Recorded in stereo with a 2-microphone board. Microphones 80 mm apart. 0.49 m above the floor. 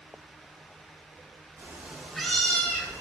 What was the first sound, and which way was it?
A cat meowing, 35° right (ahead or behind).